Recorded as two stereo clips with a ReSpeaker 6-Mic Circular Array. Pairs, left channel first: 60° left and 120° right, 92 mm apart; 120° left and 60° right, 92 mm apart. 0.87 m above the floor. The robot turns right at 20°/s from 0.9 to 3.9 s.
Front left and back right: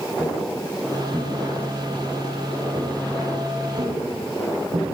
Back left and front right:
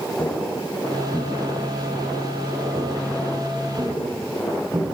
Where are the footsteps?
165° left, 10 m; by 5.0 s 115° right, 11 m.